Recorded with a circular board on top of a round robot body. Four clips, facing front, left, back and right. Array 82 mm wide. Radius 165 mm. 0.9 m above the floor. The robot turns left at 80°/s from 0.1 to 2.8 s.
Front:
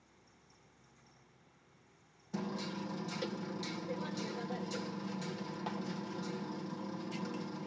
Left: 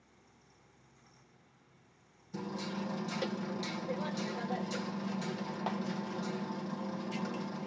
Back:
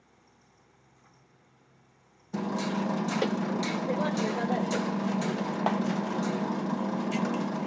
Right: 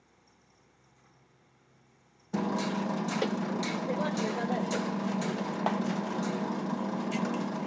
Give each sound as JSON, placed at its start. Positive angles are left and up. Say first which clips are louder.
{"t": 2.3, "sound": "hammering", "louder": "right 9 dB, back 10 dB", "azimuth_deg": -110, "distance_m": 0.6}